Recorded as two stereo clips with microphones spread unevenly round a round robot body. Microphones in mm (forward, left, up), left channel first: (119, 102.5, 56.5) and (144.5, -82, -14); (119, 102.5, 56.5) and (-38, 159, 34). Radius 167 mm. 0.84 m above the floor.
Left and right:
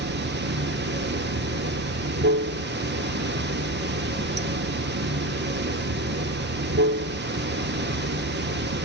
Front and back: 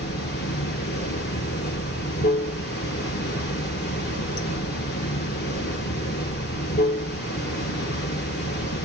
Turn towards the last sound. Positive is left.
turn(degrees=-45)